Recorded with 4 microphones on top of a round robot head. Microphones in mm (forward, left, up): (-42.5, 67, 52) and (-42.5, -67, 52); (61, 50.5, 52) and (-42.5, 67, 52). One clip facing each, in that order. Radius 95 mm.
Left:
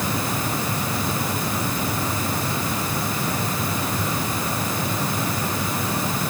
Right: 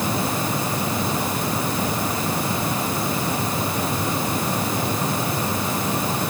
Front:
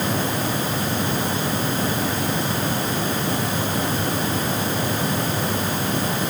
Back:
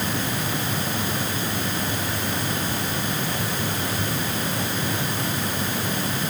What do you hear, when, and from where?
Only background noise.